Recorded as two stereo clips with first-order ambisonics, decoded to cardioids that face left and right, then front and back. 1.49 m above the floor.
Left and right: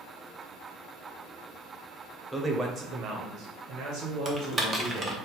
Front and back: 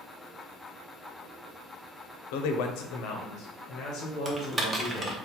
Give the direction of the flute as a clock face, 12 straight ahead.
No flute in this recording.